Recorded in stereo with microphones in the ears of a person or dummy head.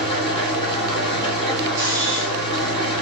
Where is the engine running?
30° left (ahead or behind), 1.1 m.